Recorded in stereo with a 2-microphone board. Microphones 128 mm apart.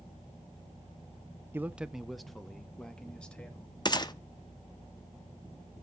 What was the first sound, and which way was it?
A man speaking, 15° right (ahead or behind).